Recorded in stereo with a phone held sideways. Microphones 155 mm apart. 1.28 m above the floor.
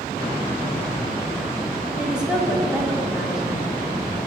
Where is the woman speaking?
5° right (ahead or behind), 3 m.